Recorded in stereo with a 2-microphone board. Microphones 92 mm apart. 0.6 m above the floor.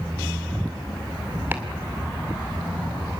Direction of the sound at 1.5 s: 20° right (ahead or behind).